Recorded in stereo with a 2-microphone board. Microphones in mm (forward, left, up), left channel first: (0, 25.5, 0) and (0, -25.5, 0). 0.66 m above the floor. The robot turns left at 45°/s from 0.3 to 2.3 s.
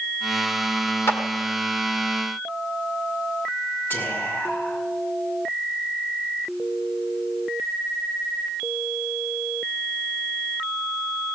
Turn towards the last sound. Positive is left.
turn(degrees=45)  # may be behind; listen again after turning